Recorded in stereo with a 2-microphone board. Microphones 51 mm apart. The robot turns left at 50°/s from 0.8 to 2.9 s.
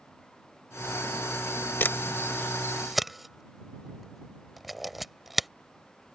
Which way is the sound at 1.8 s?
45° left (ahead or behind).